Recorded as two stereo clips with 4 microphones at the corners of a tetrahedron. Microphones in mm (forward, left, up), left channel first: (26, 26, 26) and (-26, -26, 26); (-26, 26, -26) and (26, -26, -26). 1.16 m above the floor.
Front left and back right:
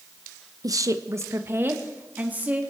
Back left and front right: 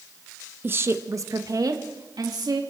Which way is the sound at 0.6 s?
105° right.